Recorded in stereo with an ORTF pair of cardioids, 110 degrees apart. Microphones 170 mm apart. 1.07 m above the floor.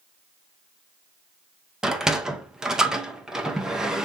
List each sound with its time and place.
1.8 s a sliding door: 5° right, 0.7 m